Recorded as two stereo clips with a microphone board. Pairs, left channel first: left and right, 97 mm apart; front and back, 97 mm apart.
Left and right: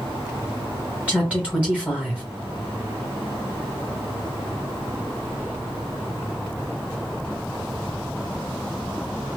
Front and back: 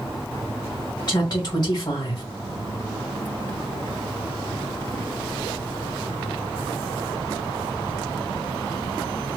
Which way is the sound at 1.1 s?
20° right.